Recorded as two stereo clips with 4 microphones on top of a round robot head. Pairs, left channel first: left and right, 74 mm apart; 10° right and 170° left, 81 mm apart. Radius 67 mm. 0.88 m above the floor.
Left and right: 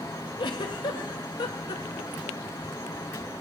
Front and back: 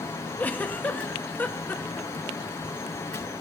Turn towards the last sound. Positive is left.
turn(degrees=60)